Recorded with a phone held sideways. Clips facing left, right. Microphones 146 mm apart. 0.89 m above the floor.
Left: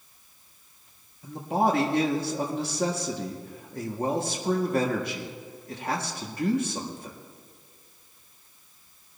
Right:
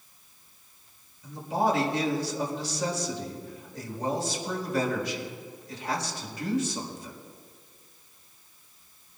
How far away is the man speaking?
About 2 m.